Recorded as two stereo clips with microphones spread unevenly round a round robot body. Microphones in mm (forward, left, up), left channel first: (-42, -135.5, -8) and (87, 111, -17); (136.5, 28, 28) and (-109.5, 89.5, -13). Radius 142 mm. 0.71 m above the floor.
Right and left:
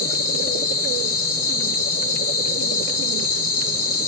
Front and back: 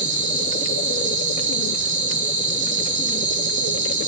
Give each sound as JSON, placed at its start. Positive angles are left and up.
{"t": 0.0, "sound": "an insect", "azimuth_deg": -140, "distance_m": 2.5}